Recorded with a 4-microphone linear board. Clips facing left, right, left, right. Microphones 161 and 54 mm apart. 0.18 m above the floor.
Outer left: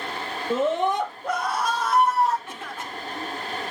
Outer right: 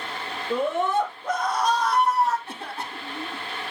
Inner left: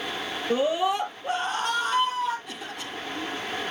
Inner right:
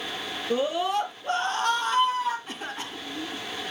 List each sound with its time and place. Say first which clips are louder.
0.5 s a scream: outer left 1 dB, inner left 1 dB; 25° left (ahead or behind), 3 m; by 2.4 s centre (ahead or behind), 5 m
2.5 s a cough: outer right 1 dB, inner right 1 dB; 35° right (ahead or behind), 2.5 m